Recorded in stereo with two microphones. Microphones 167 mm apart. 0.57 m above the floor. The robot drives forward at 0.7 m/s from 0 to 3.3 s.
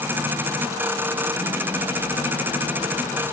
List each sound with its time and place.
Only background noise.